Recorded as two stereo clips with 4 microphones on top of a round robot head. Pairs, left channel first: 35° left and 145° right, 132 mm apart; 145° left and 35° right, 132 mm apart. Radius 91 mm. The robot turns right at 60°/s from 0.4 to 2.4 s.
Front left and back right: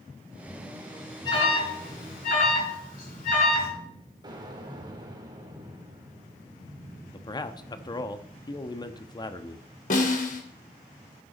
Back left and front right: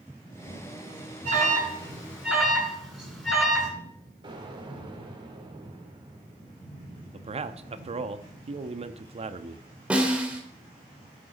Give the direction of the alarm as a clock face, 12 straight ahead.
1 o'clock.